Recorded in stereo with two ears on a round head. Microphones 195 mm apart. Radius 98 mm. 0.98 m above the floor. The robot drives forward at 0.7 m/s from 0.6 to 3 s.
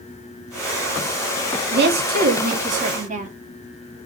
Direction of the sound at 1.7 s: 50° right (ahead or behind).